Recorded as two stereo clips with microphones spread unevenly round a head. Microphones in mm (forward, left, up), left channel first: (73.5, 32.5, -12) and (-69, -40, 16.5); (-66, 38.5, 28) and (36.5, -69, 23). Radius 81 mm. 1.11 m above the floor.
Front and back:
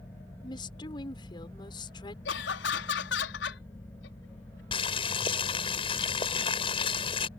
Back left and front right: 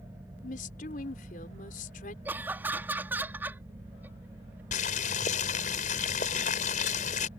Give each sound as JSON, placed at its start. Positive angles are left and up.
{"t": 0.4, "sound": "a woman speaking", "azimuth_deg": 90}
{"t": 2.2, "sound": "laughter", "azimuth_deg": 35}
{"t": 4.7, "sound": "boiling", "azimuth_deg": 90}